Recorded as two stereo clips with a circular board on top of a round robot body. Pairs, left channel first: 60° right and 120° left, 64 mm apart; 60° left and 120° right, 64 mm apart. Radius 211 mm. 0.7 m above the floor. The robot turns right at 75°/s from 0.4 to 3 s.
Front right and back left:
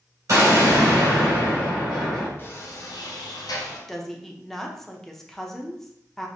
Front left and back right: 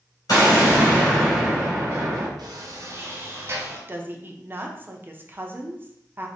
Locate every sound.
0.3 s an explosion: 85° left, 2.5 m; by 2.3 s 135° right, 2.5 m
2.4 s a sliding door: 115° right, 1.0 m; by 3.8 s 70° right, 1.0 m
3.9 s a woman speaking: 140° right, 1.0 m